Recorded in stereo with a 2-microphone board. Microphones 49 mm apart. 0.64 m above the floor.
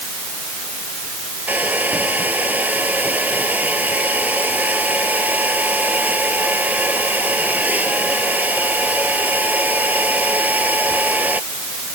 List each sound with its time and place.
1.5 s a hair dryer: 35° right (ahead or behind)